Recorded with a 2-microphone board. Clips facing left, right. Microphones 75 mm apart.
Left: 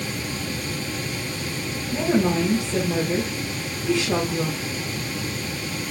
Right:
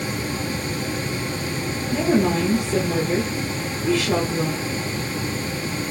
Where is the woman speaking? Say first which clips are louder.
Right 1 dB; 45° right (ahead or behind), 2.5 m.